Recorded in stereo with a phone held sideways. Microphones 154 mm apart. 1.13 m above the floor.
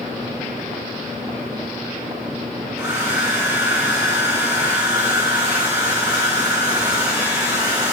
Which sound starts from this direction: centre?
A hair dryer, at 2.8 s.